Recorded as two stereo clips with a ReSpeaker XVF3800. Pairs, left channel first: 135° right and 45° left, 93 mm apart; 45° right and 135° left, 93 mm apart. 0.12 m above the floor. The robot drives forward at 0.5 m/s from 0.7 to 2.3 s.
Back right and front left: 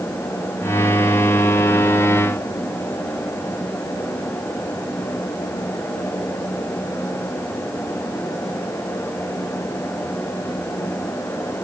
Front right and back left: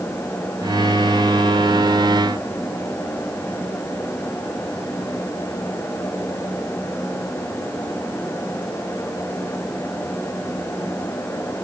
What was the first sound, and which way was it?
Only background noise.